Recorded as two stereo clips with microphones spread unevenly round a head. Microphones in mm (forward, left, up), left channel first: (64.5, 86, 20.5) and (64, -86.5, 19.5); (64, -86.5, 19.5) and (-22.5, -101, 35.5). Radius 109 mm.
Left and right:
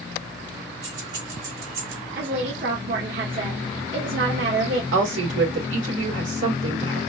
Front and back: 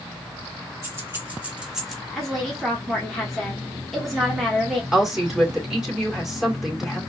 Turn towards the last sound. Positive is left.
turn(degrees=-90)